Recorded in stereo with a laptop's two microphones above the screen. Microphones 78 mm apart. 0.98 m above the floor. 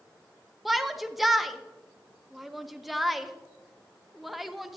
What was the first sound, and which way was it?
A shout, centre (ahead or behind).